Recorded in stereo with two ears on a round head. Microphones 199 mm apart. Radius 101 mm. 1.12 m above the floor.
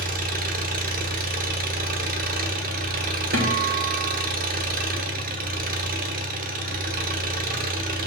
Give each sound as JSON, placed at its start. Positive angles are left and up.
{"t": 0.0, "sound": "an engine running", "side_deg": -40, "distance_m": 1.0}
{"t": 3.3, "sound": "a guitar", "side_deg": -45, "distance_m": 1.8}